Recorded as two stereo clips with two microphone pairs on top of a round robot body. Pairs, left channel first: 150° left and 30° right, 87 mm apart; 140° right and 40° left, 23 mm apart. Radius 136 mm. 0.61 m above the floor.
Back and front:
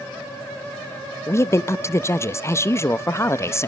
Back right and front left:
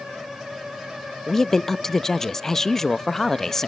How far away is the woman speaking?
About 0.8 m.